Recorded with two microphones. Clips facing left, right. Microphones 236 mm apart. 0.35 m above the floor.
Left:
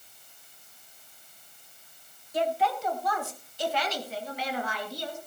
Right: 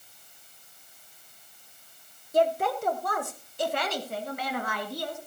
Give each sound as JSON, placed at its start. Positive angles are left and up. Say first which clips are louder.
{"t": 2.3, "sound": "a woman speaking", "louder": "right 3 dB", "side_deg": -45, "distance_m": 1.3}